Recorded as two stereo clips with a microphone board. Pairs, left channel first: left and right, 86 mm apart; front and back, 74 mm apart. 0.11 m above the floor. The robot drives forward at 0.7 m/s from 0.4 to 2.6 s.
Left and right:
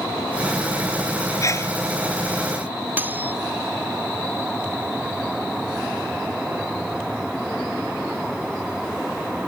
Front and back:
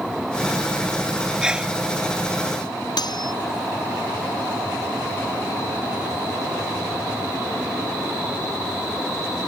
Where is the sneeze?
105° left; by 1.7 s 115° left.